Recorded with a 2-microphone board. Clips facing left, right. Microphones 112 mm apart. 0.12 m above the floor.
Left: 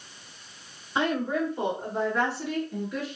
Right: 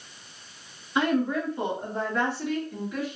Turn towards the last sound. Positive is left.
turn(degrees=-10)  # may be behind; listen again after turning